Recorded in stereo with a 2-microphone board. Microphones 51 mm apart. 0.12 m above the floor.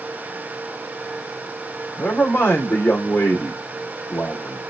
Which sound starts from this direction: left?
A man speaking, at 2.0 s.